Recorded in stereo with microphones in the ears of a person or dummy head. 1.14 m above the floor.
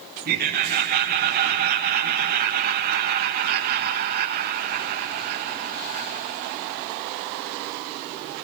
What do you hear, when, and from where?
0.2 s laughter: 45° right (ahead or behind), 1.6 m